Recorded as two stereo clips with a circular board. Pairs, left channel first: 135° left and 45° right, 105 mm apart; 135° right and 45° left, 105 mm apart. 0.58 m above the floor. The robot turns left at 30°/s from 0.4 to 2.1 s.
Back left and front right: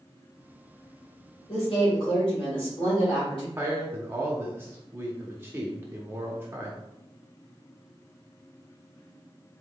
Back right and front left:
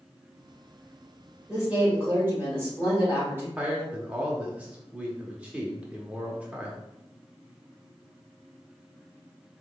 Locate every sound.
1.5 s a woman speaking: 130° left, 2.0 m; by 3.5 s 110° left, 2.0 m
3.6 s a man speaking: 15° right, 0.7 m